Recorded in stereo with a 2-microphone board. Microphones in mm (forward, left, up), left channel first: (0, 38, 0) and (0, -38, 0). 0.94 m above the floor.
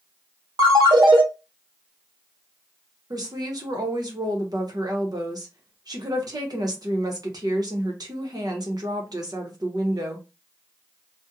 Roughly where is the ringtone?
Right.